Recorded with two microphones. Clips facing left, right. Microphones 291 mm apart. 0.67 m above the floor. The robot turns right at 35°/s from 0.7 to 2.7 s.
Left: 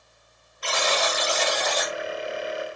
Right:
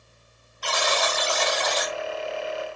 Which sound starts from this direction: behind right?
A buzzer, at 0.6 s.